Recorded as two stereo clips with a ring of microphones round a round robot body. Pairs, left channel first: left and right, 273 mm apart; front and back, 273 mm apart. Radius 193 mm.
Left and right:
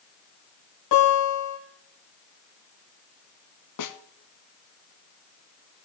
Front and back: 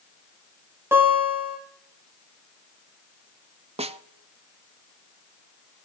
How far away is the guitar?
About 3.5 m.